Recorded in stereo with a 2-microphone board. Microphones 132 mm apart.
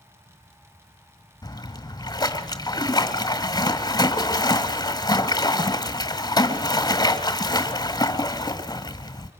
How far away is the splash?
About 1.5 m.